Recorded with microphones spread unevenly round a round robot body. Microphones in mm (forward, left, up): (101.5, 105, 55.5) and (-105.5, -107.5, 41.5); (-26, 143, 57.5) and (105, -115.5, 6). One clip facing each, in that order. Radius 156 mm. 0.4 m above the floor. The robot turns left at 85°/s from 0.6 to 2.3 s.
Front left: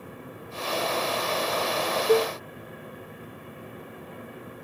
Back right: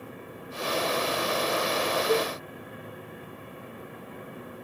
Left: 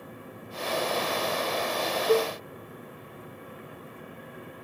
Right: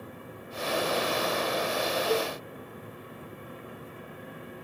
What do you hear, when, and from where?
2.1 s a cowbell: 90° left; by 2.3 s 70° left